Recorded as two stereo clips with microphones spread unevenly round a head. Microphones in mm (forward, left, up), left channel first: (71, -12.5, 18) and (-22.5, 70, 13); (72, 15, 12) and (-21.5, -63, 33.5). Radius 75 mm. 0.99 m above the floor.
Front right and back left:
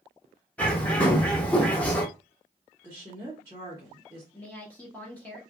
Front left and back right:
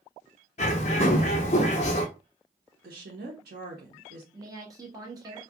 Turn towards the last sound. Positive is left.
turn(degrees=-105)